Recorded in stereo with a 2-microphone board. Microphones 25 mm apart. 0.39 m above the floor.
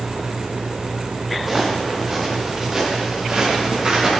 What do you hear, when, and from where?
1.4 s footsteps: 10° right (ahead or behind), 3 m; by 4.1 s 30° right (ahead or behind), 4 m